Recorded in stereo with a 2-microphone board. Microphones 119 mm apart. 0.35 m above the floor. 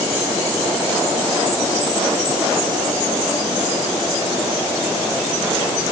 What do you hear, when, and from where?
Only background noise.